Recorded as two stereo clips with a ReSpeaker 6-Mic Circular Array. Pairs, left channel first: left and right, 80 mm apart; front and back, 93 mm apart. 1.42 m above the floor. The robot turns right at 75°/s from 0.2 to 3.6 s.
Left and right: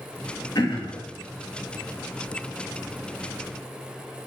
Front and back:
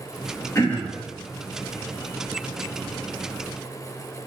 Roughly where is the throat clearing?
Ahead left.